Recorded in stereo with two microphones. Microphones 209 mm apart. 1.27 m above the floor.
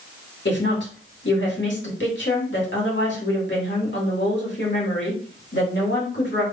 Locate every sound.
0.5 s a woman speaking: 60° left (ahead or behind), 2 m